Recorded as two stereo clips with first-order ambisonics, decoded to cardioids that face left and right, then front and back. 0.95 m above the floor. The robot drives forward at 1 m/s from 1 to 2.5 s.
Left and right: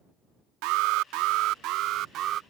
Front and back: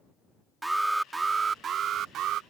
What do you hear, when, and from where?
0.6 s an alarm: 100° right; by 2.4 s 140° right